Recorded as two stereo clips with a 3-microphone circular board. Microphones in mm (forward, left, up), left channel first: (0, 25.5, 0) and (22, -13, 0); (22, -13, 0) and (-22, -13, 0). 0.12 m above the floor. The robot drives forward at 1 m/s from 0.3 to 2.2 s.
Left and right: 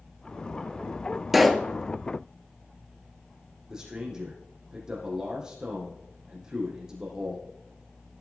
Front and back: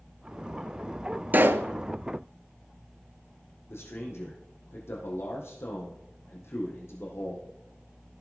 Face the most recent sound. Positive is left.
turn(degrees=15)